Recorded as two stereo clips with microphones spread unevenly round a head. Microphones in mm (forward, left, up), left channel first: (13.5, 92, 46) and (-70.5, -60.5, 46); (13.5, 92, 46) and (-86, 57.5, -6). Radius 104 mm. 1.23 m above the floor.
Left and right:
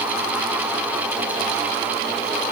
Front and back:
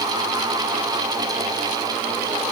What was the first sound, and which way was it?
Only background noise.